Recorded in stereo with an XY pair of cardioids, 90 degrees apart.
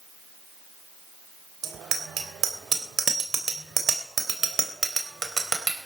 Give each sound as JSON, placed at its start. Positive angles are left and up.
{"t": 1.6, "sound": "a bicycle bell", "azimuth_deg": -65, "distance_m": 3.0}